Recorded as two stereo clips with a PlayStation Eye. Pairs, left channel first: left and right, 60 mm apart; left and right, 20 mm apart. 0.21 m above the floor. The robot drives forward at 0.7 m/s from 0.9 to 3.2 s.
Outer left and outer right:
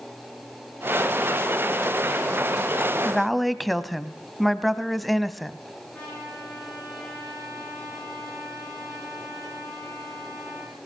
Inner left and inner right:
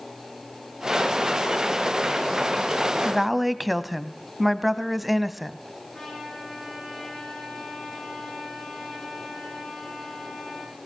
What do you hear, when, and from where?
3.0 s a woman speaking: centre (ahead or behind), 1.0 m
5.9 s a trumpet: 15° left (ahead or behind), 9 m